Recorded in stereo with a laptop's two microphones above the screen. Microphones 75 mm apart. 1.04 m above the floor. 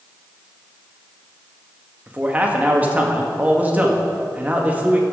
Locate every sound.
2.1 s a man speaking: 20° right (ahead or behind), 1.7 m